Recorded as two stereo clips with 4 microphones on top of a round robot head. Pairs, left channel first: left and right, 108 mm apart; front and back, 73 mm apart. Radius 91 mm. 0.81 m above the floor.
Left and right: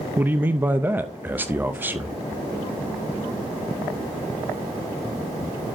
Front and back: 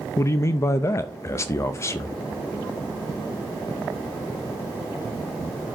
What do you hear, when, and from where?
0.2 s a man speaking: 25° right, 0.6 m